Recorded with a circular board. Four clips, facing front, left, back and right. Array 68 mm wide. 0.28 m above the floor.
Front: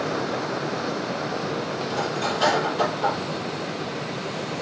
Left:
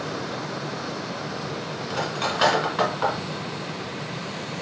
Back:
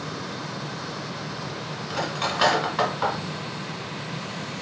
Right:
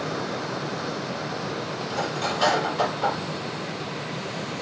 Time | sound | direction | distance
1.9 | cutlery clinking | 135° left | 1.4 m